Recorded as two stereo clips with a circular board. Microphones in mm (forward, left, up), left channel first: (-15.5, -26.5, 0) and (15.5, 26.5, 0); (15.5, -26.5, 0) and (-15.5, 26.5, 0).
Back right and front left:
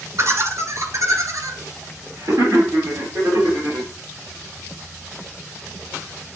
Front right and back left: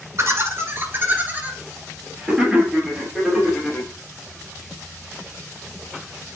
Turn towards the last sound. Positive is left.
turn(degrees=35)